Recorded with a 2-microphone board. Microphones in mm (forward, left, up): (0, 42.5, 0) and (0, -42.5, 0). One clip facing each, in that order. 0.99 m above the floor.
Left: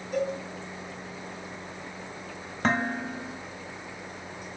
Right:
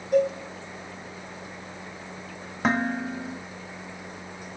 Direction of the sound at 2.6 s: 5° right (ahead or behind).